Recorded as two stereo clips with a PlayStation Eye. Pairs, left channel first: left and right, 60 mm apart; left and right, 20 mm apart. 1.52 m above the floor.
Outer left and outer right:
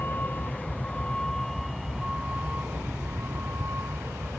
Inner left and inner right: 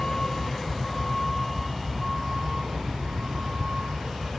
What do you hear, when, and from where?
0.0 s a vehicle: 35° left (ahead or behind); by 4.4 s 50° right (ahead or behind)